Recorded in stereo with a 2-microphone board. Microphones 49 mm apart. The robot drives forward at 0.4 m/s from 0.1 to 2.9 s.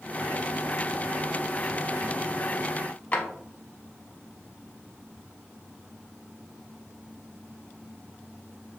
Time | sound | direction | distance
3.1 | a drawer | 30° left (ahead or behind) | 0.7 m